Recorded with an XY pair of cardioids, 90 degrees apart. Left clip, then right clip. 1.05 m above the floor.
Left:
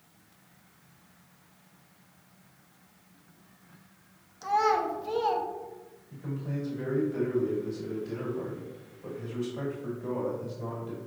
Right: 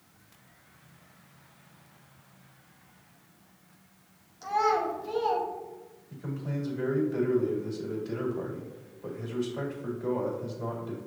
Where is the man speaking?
35° right, 1.6 m.